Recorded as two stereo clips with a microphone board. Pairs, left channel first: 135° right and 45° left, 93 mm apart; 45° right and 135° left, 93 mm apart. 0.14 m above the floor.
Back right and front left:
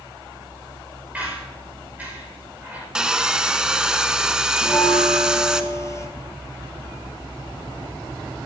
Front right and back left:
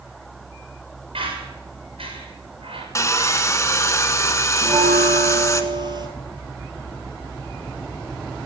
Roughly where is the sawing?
Ahead right.